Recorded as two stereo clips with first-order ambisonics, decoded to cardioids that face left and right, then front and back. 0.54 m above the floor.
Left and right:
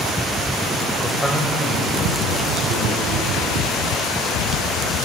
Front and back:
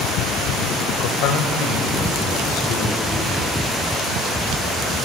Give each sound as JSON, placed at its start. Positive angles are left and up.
{"t": 1.0, "sound": "a man speaking", "azimuth_deg": -5, "distance_m": 1.6}